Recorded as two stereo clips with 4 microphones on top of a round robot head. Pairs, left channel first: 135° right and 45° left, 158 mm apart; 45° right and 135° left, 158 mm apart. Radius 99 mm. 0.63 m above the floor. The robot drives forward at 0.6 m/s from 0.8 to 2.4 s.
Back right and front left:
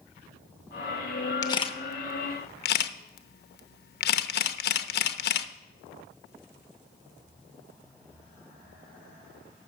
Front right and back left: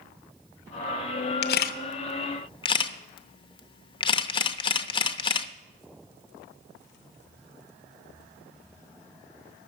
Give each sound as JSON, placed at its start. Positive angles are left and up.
{"t": 1.4, "sound": "a camera shutter", "azimuth_deg": -65, "distance_m": 0.8}